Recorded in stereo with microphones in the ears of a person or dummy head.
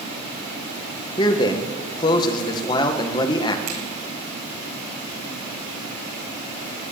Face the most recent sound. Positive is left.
turn(degrees=-60)  # may be behind; listen again after turning